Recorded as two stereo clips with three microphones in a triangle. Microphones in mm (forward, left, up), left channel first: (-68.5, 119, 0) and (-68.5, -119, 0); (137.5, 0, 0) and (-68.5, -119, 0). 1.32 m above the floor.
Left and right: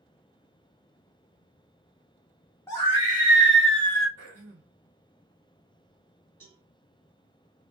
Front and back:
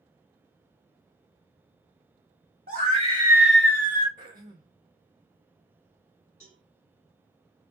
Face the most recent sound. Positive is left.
turn(degrees=-100)